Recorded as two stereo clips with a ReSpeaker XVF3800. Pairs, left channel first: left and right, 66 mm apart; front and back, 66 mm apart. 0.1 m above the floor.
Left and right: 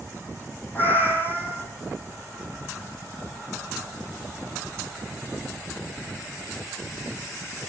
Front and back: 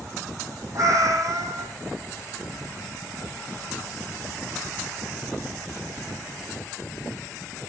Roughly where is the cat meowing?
Behind left.